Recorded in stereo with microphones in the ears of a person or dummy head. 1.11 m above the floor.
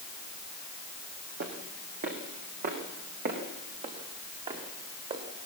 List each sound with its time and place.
1.4 s footsteps: 60° right (ahead or behind), 3.5 m; by 5.2 s 40° right (ahead or behind), 5 m